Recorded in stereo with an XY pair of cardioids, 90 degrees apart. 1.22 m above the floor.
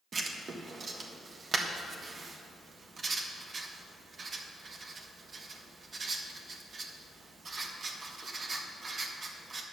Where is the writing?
45° right, 1.4 m.